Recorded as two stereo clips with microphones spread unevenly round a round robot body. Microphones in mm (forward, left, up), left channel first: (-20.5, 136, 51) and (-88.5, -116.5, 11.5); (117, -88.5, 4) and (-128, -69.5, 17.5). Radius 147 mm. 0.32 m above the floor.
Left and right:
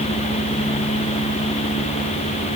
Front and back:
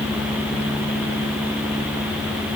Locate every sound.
Only background noise.